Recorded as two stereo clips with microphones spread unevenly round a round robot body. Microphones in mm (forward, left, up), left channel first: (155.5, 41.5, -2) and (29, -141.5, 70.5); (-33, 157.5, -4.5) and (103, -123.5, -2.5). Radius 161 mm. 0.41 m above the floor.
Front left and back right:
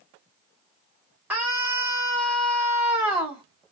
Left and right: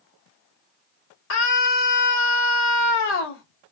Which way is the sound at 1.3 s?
135° left.